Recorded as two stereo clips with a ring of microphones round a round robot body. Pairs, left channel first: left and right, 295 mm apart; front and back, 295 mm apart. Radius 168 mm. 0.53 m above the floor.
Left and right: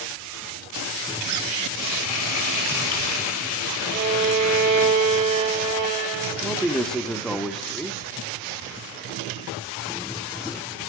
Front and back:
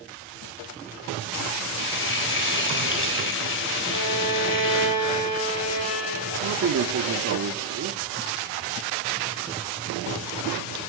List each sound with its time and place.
1.8 s frying: 50° left, 2.5 m
3.9 s a violin: 50° right, 7 m
6.4 s a man speaking: straight behind, 1.1 m